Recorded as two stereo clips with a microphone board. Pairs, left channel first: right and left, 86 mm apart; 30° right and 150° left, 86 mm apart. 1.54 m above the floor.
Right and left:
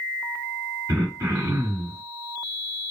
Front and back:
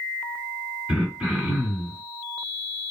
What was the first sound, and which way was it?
Throat clearing, 75° left.